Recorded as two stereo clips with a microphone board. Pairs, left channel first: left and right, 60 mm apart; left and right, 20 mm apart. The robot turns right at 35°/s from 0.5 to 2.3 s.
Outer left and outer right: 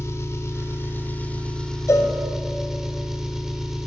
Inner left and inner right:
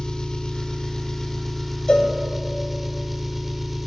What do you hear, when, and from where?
0.0 s an engine running: 125° left, 0.9 m; by 3.9 s 170° right, 0.9 m
1.9 s a cowbell: 60° left (ahead or behind), 1.1 m; by 2.1 s 50° left (ahead or behind), 1.1 m